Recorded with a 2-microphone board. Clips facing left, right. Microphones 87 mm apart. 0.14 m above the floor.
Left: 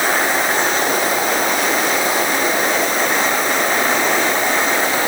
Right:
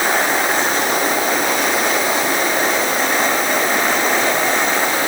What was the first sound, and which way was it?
Only background noise.